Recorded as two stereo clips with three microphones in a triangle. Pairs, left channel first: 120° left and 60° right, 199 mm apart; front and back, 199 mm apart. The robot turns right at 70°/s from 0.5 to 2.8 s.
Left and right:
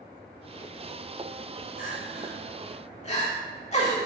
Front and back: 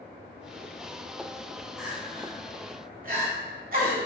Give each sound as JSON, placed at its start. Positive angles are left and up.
{"t": 1.8, "sound": "crying", "azimuth_deg": 90, "distance_m": 0.9}